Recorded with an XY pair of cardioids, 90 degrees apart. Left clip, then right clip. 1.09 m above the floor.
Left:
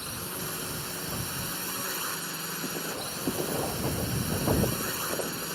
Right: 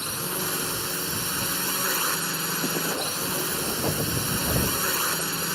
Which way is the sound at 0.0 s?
55° right.